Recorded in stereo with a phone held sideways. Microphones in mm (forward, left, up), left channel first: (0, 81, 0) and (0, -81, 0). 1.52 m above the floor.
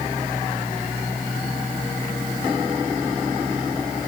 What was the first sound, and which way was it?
Only background noise.